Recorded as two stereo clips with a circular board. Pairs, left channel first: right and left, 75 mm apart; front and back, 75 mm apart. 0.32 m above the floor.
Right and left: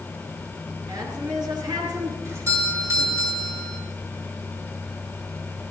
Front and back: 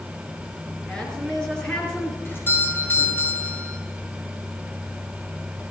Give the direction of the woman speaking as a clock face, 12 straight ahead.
9 o'clock.